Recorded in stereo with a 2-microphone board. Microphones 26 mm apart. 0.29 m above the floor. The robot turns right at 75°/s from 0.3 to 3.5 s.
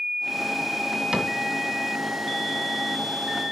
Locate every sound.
1.1 s a cupboard door: 30° right (ahead or behind), 2.0 m; by 1.3 s 20° right (ahead or behind), 2.0 m